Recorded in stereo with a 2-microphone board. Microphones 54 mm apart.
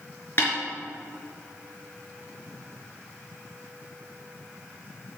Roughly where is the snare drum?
Left.